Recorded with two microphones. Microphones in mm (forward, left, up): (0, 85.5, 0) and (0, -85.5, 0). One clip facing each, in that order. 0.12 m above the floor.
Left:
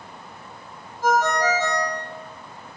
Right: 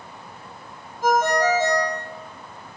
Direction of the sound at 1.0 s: 15° right (ahead or behind).